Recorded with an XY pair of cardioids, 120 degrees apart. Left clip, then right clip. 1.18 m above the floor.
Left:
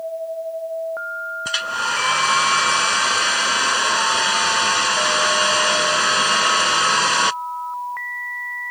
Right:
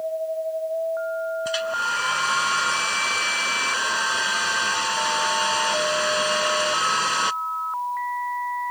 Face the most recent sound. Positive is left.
turn(degrees=35)